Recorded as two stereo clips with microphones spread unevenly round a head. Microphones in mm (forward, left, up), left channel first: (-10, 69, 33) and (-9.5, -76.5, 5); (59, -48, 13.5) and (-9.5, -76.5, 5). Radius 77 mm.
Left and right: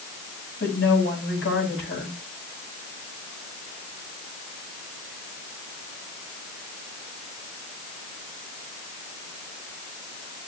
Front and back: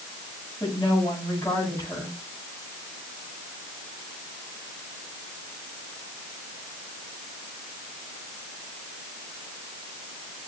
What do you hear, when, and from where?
0.6 s a woman speaking: 95° left, 8.5 m